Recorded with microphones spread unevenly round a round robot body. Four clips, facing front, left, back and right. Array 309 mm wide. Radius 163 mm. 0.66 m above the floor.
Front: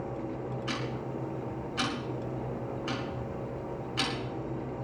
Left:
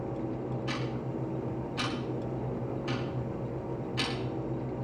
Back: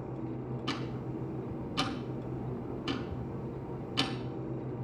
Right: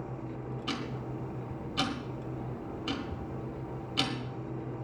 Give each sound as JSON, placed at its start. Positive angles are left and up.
{"t": 0.7, "sound": "ticking", "azimuth_deg": -130, "distance_m": 1.7}